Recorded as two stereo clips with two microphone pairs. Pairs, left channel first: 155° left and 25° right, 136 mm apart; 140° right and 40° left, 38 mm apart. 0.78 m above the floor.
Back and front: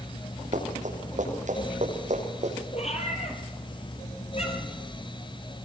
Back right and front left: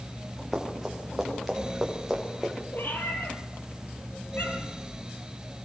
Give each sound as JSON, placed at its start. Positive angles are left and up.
{"t": 0.5, "sound": "running footsteps", "azimuth_deg": -45, "distance_m": 8.0}
{"t": 2.7, "sound": "a cat meowing", "azimuth_deg": -170, "distance_m": 6.0}